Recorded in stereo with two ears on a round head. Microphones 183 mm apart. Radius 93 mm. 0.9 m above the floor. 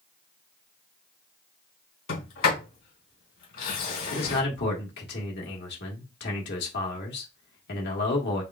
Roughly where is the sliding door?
Left.